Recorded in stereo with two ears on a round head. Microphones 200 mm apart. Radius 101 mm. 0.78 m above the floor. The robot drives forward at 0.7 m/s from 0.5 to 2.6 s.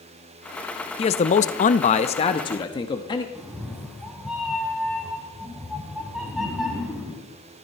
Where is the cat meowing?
5° right (ahead or behind), 1.8 m.